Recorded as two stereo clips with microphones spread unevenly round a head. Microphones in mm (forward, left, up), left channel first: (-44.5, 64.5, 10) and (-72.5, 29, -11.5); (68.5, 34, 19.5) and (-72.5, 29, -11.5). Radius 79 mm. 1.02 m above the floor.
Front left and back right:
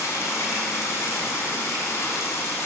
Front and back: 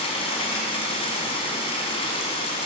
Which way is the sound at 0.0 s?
50° left.